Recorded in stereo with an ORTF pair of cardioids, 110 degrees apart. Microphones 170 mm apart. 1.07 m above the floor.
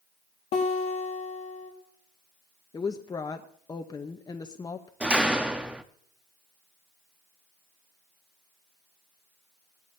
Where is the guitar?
45° left, 4 m.